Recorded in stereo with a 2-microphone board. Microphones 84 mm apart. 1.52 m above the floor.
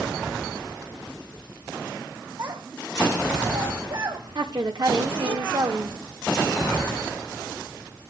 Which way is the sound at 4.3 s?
60° right (ahead or behind).